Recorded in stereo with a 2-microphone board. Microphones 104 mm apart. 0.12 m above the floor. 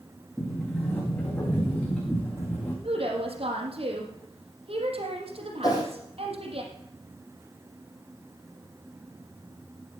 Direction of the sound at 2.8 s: 70° right (ahead or behind).